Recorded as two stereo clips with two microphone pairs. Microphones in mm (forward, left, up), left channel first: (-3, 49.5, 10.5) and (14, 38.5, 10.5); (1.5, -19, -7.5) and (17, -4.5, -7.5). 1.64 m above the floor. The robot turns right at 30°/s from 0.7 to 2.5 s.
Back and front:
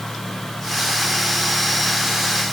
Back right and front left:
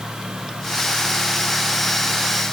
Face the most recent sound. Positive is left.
No sound to turn to.